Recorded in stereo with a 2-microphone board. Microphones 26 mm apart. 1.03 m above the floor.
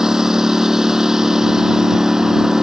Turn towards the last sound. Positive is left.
turn(degrees=-20)  # may be behind; listen again after turning